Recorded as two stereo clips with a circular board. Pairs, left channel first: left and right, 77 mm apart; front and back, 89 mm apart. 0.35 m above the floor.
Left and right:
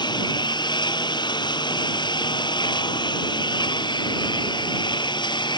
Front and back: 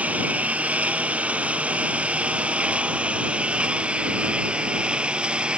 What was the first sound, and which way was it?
A lawn mower, 105° left.